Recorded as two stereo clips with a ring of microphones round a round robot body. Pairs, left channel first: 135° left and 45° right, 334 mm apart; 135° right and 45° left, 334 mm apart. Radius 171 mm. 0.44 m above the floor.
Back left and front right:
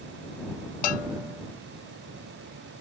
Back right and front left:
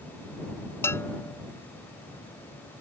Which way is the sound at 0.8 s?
140° left.